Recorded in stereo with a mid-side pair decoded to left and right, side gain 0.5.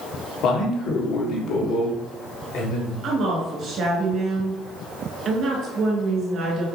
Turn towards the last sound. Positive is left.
turn(degrees=-60)